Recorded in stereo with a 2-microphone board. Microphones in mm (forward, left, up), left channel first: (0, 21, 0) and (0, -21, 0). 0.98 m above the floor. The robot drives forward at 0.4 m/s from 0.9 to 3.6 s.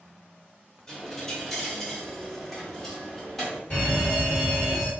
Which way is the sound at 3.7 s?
25° left (ahead or behind).